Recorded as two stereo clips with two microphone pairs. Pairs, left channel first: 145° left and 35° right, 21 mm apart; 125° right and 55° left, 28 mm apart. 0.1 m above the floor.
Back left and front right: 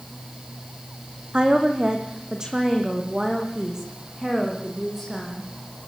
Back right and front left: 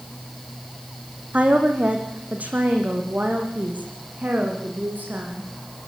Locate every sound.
1.3 s a woman speaking: 10° left, 4 m; by 5.5 s 35° left, 8 m